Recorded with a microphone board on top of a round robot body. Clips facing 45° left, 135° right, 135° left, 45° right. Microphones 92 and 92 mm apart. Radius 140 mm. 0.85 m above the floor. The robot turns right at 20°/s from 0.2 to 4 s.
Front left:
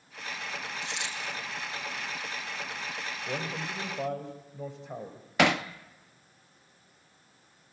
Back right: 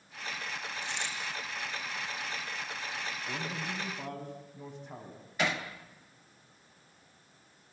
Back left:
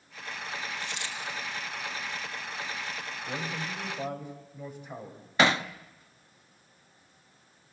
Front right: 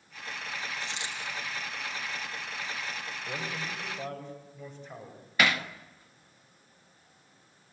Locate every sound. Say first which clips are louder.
0.8 s a dropped coin: front left 1 dB, even; 20° left, 5.5 m; by 1.2 s 25° left, 5.5 m
3.3 s a man speaking: front left 4 dB, back left 2 dB; 40° left, 4.5 m; by 5.2 s 55° left, 4.5 m
5.4 s hammering: front left 8 dB, back left 3 dB; 70° left, 0.8 m